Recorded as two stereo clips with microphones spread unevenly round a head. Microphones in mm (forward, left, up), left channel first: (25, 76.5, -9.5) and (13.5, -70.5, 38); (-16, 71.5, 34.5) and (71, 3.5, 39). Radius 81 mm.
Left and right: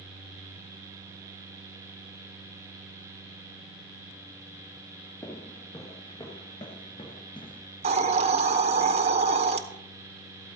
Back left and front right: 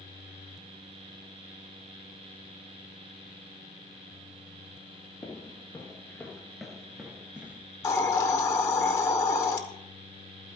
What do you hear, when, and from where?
5.2 s footsteps: straight behind, 1.5 m; by 7.7 s 20° left, 1.6 m
7.8 s a hiss: 150° right, 0.9 m